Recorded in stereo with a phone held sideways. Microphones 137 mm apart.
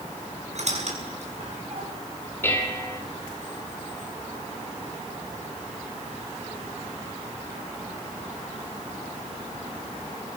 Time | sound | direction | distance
0.6 | a squeak | 60° right (ahead or behind) | 7 m
2.4 | dishes clattering | 15° left (ahead or behind) | 3.5 m